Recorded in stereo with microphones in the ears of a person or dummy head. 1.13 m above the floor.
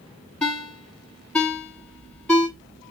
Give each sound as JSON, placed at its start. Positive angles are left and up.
{"t": 0.4, "sound": "a ringtone", "side_deg": 5, "distance_m": 1.3}